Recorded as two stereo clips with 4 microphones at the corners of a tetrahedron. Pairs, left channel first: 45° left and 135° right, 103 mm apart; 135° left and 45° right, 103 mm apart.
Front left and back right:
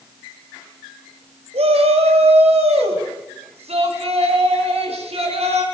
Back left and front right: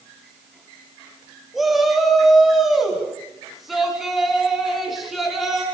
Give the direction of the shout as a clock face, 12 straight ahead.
4 o'clock.